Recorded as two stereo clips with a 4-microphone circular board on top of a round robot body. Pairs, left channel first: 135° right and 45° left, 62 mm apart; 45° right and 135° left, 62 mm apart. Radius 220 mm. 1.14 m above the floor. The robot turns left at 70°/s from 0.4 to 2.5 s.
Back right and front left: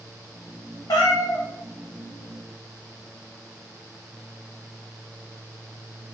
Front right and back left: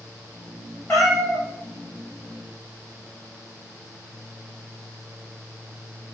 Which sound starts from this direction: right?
A cat meowing, at 0.9 s.